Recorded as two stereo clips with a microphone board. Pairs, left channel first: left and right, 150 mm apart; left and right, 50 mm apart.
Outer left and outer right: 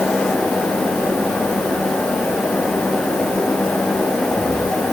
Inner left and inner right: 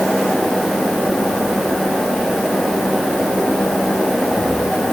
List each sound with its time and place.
Only background noise.